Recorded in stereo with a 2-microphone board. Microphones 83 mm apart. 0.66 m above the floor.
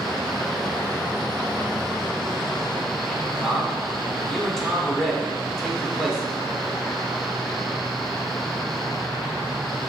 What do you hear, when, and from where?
3.4 s a man speaking: 5° left (ahead or behind), 1.9 m